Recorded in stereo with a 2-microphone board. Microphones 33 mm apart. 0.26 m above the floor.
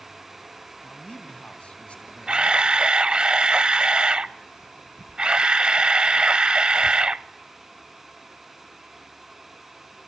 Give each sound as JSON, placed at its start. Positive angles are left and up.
{"t": 0.8, "sound": "a man speaking", "side_deg": 40, "distance_m": 2.5}
{"t": 2.3, "sound": "a camera shutter", "side_deg": -30, "distance_m": 0.6}